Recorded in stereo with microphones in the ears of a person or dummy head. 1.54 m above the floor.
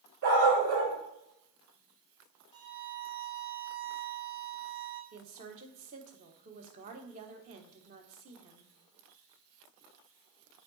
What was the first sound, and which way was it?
A dog barking, 65° right (ahead or behind).